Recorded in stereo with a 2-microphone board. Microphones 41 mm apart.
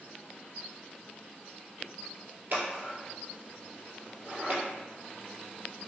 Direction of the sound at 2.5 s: 55° right (ahead or behind).